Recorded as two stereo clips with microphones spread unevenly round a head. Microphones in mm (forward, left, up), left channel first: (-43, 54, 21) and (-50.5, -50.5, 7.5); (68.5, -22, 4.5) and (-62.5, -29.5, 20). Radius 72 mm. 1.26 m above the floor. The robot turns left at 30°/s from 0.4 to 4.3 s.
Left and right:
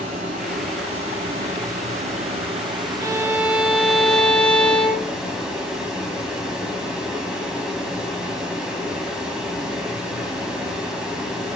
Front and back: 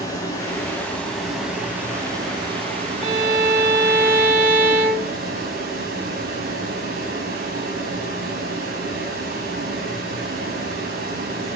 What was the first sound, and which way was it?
Running water, 60° right.